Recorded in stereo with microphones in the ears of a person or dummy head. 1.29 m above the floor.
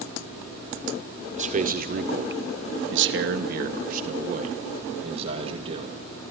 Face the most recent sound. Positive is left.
turn(degrees=-30)  # may be behind; listen again after turning